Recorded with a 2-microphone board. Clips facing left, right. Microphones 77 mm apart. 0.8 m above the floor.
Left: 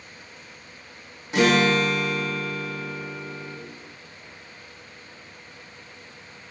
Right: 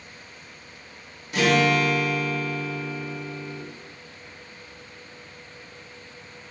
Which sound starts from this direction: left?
A guitar, at 1.3 s.